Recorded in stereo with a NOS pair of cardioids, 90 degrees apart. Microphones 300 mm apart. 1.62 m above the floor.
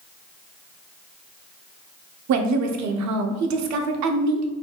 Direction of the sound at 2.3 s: 70° right.